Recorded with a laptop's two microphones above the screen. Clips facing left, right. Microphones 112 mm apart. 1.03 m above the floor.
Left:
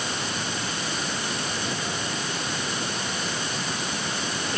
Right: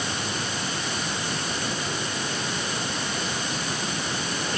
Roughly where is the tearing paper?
I don't hear tearing paper.